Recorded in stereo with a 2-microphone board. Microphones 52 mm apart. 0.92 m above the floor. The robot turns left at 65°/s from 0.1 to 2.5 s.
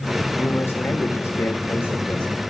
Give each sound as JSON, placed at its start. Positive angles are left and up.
{"t": 0.4, "sound": "a man speaking", "azimuth_deg": 140, "distance_m": 4.0}